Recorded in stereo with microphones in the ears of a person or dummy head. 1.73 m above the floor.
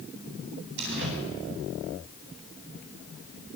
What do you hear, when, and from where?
0.8 s a door slam: 65° right (ahead or behind), 10 m